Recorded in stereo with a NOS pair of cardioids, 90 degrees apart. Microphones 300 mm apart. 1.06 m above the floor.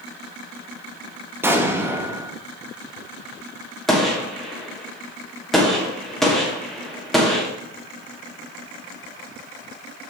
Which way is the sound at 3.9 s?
Straight ahead.